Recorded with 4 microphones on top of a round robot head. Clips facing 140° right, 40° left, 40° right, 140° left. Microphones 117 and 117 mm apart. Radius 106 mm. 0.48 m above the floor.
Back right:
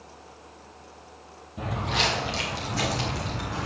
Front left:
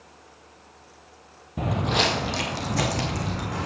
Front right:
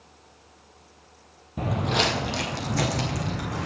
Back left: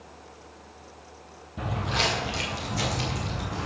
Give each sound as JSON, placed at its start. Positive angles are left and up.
{"t": 1.6, "sound": "footsteps", "azimuth_deg": 5, "distance_m": 0.6}